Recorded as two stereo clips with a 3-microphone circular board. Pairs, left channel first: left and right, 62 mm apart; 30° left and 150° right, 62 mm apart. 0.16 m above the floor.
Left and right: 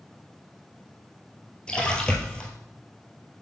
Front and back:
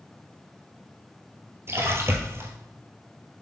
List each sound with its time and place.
1.7 s a splash: 165° left, 1.3 m